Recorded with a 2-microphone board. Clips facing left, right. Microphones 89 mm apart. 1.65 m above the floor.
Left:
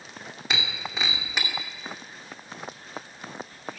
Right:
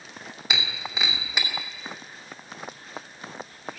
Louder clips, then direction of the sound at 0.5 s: Even; centre (ahead or behind).